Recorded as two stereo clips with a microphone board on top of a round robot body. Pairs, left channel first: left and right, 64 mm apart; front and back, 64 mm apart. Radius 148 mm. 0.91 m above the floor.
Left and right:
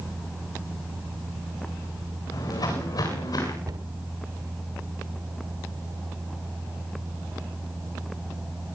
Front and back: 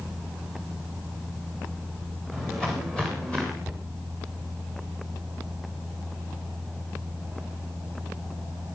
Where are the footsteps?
80° left, 8.5 m; by 3.6 s 75° left, 7.5 m.